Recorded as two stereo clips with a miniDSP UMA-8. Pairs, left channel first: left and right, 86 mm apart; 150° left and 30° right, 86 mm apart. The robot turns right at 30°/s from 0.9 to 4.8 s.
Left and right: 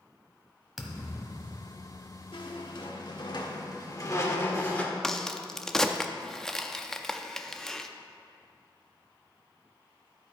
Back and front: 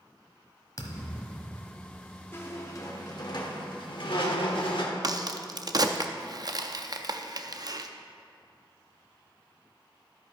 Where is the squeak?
90° left, 1.1 m; by 4.9 s 160° left, 1.1 m.